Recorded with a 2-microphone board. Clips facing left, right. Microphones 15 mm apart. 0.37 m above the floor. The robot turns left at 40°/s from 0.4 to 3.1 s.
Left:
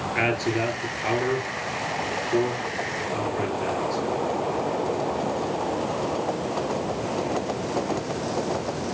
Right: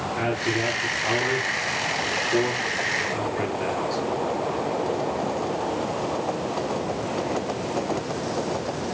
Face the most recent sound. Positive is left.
turn(degrees=-20)  # may be behind; listen again after turning